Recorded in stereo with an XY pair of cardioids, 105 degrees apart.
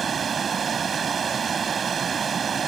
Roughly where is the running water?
Ahead right.